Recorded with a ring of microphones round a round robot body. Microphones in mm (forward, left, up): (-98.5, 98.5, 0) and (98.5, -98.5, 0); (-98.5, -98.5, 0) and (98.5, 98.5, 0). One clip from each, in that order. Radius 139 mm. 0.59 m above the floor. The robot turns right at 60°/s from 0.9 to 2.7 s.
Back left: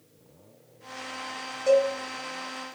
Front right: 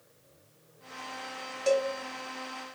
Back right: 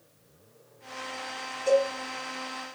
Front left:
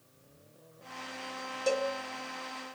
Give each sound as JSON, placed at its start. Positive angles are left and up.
{"t": 1.7, "sound": "a cowbell", "azimuth_deg": -15, "distance_m": 1.5}